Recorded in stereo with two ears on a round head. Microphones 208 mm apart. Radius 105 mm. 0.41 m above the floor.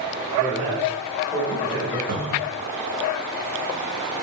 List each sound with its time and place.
0.4 s a man speaking: 15° right (ahead or behind), 1.2 m
2.1 s a cupboard door: 45° right (ahead or behind), 0.7 m